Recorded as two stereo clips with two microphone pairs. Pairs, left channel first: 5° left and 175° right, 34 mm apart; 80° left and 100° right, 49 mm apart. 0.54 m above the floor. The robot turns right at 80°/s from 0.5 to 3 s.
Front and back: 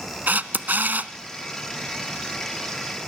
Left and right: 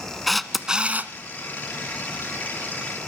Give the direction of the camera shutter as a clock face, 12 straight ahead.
6 o'clock.